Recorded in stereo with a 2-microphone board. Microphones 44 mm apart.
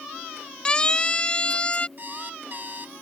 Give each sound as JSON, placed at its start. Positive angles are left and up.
{"t": 0.7, "sound": "a siren", "side_deg": 25}
{"t": 2.0, "sound": "an alarm clock", "side_deg": -45}